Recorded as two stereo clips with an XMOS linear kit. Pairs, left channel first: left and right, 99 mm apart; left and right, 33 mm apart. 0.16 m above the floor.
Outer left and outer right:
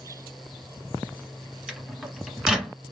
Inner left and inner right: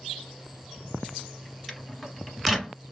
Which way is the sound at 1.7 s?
5° right (ahead or behind).